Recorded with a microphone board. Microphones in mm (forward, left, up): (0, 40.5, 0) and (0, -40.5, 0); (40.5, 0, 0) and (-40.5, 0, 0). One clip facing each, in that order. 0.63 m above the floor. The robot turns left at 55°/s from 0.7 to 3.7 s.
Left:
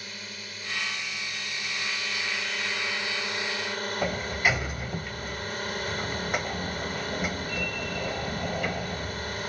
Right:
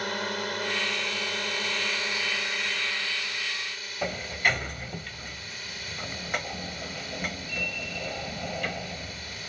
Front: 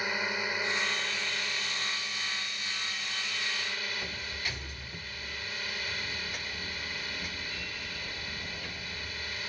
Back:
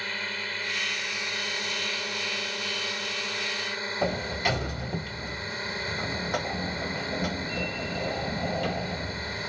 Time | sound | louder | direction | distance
0.0 | a drone | right 12 dB, front 2 dB | 75° right | ?
4.0 | a sliding door | even, back 12 dB | 175° left | ?